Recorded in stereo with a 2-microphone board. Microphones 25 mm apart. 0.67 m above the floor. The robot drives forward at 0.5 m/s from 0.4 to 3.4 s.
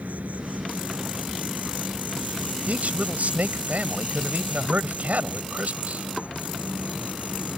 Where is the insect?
85° right; by 7.6 s 60° right (ahead or behind).